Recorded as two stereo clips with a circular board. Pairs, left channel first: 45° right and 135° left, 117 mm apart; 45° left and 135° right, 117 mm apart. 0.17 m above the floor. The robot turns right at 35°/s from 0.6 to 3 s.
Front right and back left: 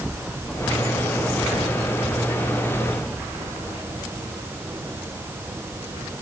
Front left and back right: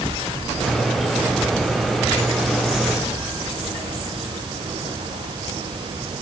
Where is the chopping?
No chopping in this recording.